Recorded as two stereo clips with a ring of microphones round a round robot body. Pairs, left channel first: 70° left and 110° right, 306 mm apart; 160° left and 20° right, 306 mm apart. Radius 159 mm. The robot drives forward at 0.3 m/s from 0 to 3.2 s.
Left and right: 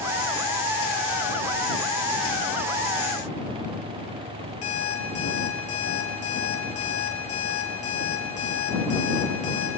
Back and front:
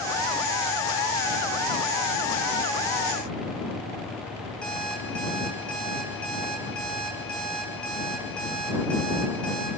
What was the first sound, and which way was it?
An alarm clock, 70° left.